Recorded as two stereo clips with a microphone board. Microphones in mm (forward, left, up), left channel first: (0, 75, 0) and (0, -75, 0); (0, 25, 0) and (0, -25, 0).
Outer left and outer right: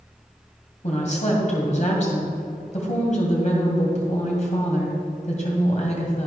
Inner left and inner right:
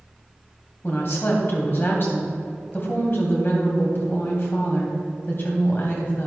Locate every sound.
0.8 s a woman speaking: 50° left (ahead or behind), 2.5 m